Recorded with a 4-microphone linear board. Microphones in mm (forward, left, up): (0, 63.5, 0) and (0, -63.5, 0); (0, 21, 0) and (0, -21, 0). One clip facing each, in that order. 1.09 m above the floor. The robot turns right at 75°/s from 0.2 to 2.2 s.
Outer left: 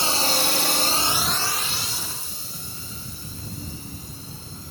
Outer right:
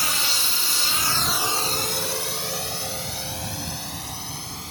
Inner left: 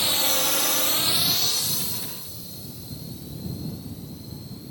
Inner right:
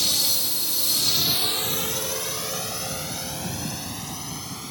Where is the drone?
25° left (ahead or behind); by 4.7 s 75° right (ahead or behind).